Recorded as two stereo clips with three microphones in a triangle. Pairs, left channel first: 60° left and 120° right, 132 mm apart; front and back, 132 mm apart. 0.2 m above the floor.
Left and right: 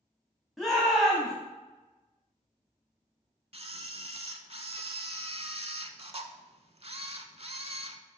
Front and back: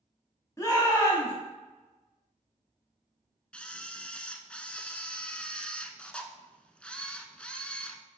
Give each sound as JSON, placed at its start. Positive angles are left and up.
{"t": 0.6, "sound": "a shout", "azimuth_deg": -30, "distance_m": 1.7}
{"t": 3.5, "sound": "a camera shutter", "azimuth_deg": -80, "distance_m": 0.5}